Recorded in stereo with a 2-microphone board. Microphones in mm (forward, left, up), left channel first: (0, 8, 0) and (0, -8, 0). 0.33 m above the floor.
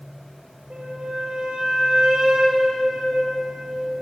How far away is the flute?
About 1.8 m.